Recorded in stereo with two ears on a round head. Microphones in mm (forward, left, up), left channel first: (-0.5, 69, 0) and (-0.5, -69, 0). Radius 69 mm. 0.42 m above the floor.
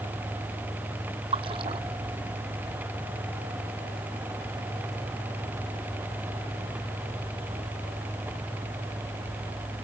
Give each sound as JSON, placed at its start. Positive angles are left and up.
{"t": 1.3, "sound": "a splash", "side_deg": -35}